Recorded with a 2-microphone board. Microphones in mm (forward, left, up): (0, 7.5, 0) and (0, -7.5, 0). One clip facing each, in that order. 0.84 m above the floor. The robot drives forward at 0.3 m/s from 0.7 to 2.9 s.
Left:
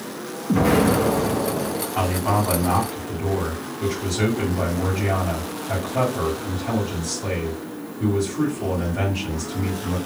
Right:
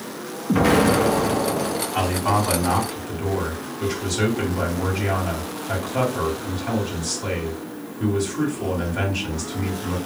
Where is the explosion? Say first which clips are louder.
Right 1 dB; 30° right (ahead or behind), 0.7 m; by 1.8 s 40° right (ahead or behind), 0.5 m.